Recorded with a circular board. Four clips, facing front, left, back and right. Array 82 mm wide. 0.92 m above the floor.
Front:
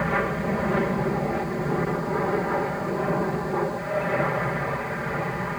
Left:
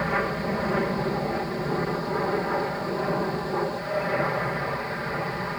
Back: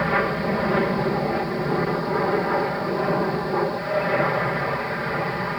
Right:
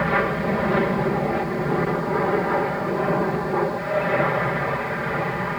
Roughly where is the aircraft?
Behind right.